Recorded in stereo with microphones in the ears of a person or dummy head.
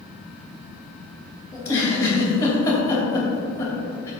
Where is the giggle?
25° left (ahead or behind), 2.5 m.